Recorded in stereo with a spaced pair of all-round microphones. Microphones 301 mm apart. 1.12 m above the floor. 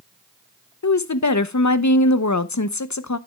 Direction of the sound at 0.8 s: 70° left (ahead or behind).